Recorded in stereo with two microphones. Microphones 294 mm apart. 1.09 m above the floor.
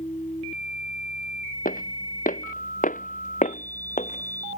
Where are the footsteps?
30° left (ahead or behind); by 4.6 s 20° left (ahead or behind).